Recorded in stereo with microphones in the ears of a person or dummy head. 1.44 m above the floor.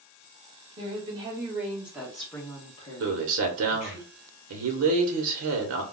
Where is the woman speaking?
30° right (ahead or behind), 1.3 m; by 4.0 s 60° left (ahead or behind), 1.1 m.